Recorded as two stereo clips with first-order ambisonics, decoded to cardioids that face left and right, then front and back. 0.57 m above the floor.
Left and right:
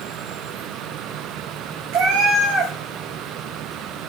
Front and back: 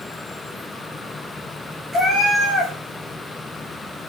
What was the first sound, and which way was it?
A cat meowing, 100° right.